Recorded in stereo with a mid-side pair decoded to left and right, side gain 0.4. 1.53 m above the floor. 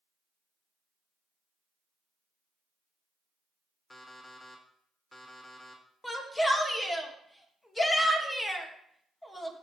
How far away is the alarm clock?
About 2.5 m.